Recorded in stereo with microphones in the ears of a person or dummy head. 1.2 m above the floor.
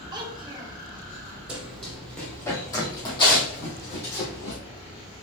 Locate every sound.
0.1 s a child speaking: 25° right (ahead or behind), 1.1 m
1.5 s running footsteps: 10° right (ahead or behind), 1.6 m; by 4.6 s 40° left (ahead or behind), 3 m